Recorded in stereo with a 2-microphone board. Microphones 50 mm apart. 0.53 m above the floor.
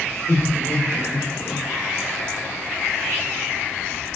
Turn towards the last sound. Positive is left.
turn(degrees=60)  # may be behind; listen again after turning